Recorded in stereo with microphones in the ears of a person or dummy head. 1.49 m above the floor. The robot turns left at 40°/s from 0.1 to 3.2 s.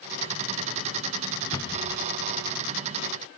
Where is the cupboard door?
15° left (ahead or behind), 0.7 m; by 1.8 s 30° left (ahead or behind), 0.7 m.